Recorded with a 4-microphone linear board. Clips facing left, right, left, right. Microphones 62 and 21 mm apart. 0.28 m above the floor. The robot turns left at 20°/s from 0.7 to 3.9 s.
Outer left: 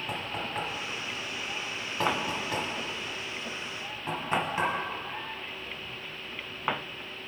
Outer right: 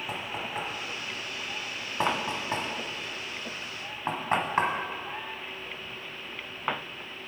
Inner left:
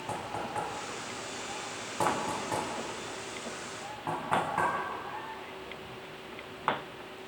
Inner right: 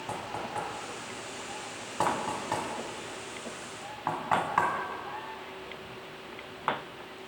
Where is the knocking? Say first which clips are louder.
Outer left 1 dB, even; centre (ahead or behind), 1.3 m; by 4.7 s 50° right (ahead or behind), 1.3 m.